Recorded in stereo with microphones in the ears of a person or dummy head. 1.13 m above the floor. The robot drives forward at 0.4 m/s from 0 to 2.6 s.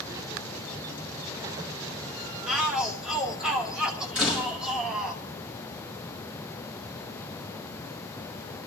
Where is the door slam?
Centre (ahead or behind), 5 m.